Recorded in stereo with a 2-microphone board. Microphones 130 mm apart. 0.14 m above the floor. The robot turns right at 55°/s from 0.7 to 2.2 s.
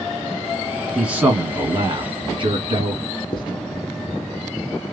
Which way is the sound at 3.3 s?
35° left (ahead or behind).